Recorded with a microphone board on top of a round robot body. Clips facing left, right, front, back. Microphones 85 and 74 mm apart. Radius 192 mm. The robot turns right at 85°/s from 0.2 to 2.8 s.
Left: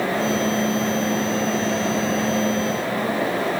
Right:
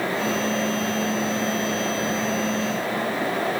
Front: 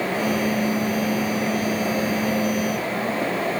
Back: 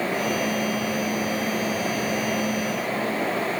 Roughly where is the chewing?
No chewing in this recording.